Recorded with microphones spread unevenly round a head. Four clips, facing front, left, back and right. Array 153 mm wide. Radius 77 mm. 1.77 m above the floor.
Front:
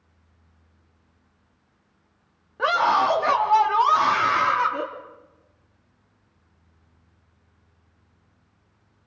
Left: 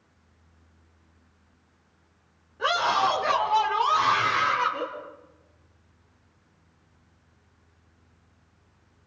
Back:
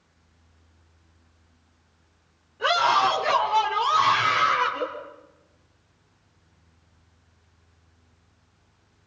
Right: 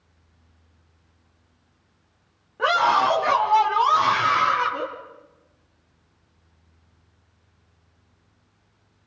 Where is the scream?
40° right, 4.5 m; by 4.9 s 20° right, 5 m.